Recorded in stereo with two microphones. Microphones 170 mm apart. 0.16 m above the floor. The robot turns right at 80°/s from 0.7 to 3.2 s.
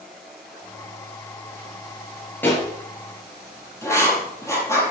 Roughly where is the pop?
Centre.